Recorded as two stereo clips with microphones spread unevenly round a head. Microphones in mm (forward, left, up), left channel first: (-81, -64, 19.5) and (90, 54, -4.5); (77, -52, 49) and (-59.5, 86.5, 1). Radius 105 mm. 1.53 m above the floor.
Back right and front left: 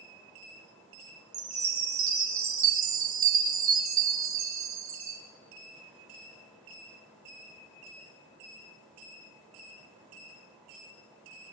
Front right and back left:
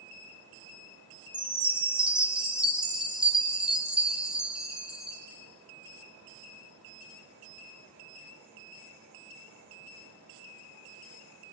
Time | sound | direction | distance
1.3 | a chime | 45° left | 2.5 m